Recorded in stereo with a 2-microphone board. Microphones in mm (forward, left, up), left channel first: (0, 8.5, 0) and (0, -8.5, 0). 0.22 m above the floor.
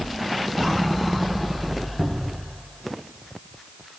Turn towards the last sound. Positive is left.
turn(degrees=-15)  # may be behind; listen again after turning